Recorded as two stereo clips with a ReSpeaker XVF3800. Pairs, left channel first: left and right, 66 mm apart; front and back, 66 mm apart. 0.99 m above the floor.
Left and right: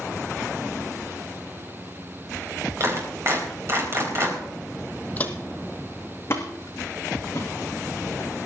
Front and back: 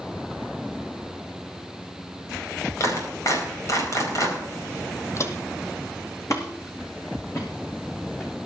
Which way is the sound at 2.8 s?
40° right.